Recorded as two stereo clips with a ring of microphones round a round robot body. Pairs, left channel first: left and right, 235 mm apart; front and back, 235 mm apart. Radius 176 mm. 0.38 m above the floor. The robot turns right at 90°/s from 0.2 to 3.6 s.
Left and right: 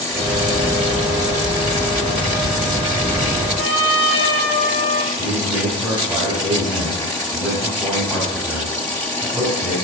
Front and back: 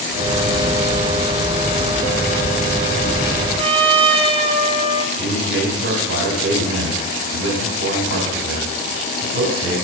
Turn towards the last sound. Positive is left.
turn(degrees=-170)